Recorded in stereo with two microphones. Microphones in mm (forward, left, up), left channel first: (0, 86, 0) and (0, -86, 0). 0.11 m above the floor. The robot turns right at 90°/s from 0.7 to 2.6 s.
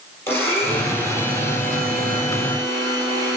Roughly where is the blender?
Behind.